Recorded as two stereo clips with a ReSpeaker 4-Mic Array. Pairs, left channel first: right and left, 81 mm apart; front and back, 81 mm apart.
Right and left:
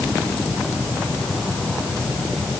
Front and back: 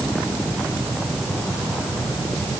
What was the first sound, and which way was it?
Only background noise.